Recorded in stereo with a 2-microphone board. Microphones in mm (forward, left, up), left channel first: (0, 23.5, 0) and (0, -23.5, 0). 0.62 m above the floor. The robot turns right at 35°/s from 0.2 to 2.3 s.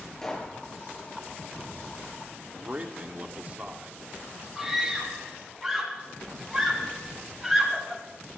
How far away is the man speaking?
About 1.8 m.